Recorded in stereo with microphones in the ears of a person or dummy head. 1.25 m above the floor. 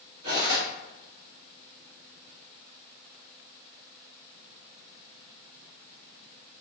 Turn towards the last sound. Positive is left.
turn(degrees=-55)  # may be behind; listen again after turning